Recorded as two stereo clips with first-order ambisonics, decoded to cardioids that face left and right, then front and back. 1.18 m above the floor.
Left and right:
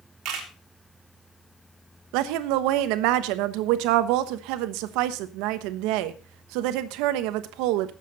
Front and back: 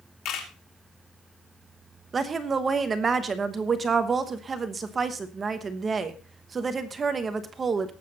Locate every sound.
0.2 s a camera shutter: 45° right, 3 m
2.1 s a woman speaking: 110° right, 1.0 m